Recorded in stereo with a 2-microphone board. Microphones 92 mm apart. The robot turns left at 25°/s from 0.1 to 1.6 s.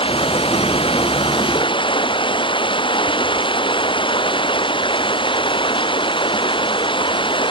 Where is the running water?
105° left; by 7.5 s 65° left.